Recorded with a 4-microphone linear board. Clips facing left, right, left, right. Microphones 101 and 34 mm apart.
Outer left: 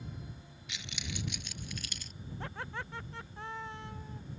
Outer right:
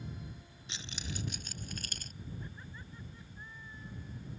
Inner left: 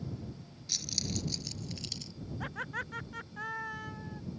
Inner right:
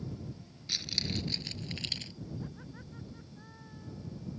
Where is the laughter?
85° left.